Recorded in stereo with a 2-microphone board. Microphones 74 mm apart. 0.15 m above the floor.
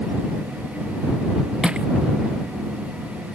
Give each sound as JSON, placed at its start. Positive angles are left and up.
{"t": 1.6, "sound": "crushing", "side_deg": -10}